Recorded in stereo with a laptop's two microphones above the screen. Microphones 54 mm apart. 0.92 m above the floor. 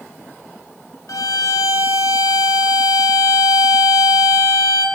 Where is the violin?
80° left, 0.6 m.